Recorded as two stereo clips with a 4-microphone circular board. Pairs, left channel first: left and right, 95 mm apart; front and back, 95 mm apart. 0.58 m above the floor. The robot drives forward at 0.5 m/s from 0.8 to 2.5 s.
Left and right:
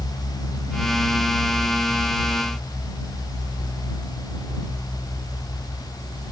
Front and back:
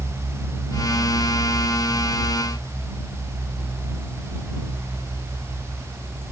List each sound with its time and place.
Only background noise.